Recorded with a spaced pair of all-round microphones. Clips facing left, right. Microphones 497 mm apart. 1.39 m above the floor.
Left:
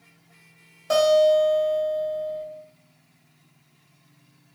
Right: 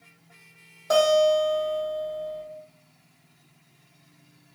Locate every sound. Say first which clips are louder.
0.9 s a guitar: left 2 dB; 30° left (ahead or behind), 0.9 m